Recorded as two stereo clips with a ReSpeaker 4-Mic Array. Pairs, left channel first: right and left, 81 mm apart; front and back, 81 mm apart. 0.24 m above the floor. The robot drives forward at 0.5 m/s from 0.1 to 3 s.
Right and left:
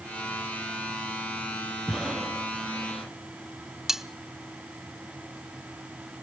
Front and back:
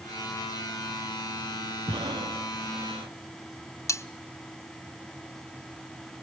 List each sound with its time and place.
1.9 s breathing: 175° left, 2 m
3.9 s cutlery clinking: 5° left, 0.7 m